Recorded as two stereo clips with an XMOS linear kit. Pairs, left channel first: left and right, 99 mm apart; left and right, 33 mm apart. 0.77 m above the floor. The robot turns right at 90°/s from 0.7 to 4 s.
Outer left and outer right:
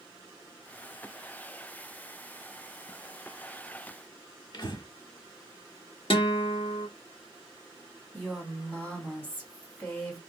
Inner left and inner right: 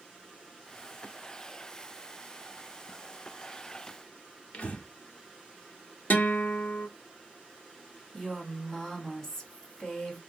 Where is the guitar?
70° left (ahead or behind), 0.7 m.